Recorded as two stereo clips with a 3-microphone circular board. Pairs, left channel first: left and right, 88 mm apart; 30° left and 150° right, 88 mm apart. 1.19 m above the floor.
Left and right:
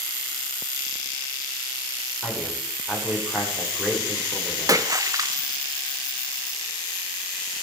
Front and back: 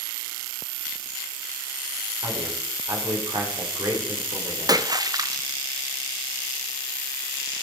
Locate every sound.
2.2 s a man speaking: 165° right, 4 m
4.7 s a splash: 125° right, 0.7 m